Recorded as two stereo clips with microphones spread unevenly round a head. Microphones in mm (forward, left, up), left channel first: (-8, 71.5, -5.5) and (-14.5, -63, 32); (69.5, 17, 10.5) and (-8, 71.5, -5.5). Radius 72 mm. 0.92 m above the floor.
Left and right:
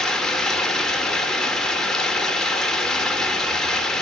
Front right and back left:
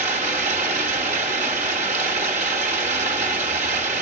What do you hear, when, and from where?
0.0 s running water: straight behind, 0.9 m